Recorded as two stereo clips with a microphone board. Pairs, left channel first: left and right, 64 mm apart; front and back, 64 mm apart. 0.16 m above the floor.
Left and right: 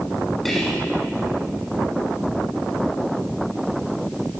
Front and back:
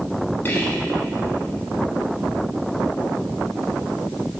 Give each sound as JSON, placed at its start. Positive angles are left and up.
{"t": 0.5, "sound": "whispering", "azimuth_deg": 5, "distance_m": 1.2}